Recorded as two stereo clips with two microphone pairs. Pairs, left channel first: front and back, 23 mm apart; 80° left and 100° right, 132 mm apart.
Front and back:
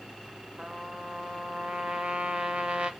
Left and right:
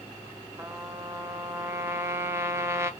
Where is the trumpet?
170° right, 0.7 m.